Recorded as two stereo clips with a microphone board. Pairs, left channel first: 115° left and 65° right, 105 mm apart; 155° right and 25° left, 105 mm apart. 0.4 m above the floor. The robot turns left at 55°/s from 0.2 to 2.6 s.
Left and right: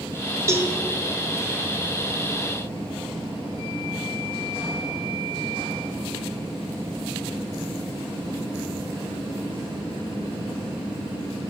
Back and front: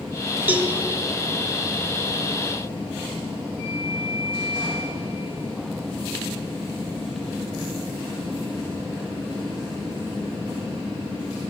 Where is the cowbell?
35° right, 0.8 m; by 0.7 s 50° right, 0.8 m.